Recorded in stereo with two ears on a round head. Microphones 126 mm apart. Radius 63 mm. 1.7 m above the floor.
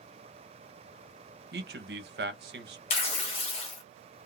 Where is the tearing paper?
45° left (ahead or behind), 0.7 m.